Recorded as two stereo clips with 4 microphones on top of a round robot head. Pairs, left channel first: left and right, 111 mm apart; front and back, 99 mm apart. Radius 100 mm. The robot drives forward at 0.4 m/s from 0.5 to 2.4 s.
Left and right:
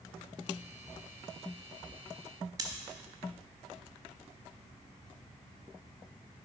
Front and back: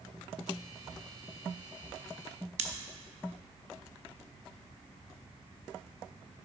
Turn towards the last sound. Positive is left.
turn(degrees=-155)